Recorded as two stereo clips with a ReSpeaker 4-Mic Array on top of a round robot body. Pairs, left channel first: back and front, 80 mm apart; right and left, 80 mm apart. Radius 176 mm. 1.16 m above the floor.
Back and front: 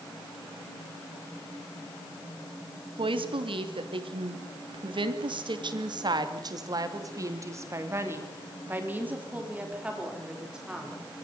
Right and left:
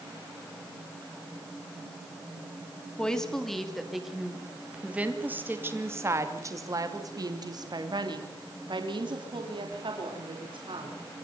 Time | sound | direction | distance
3.0 | a woman speaking | 10° right | 3 m